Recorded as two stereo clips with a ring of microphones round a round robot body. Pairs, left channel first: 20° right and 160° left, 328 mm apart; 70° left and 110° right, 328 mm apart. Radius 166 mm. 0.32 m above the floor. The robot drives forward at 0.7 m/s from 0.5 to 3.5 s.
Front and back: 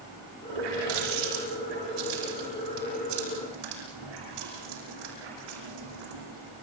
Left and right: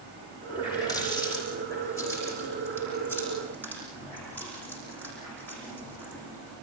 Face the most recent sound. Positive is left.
turn(degrees=150)